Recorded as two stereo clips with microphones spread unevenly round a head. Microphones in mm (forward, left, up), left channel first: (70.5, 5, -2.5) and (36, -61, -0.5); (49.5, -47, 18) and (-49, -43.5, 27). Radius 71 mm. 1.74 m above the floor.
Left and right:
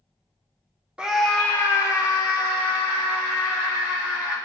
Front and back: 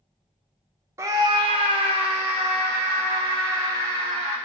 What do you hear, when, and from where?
1.0 s a scream: straight behind, 0.7 m; by 4.4 s 120° left, 4.5 m